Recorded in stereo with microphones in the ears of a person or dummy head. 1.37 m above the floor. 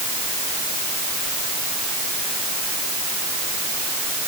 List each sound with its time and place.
Only background noise.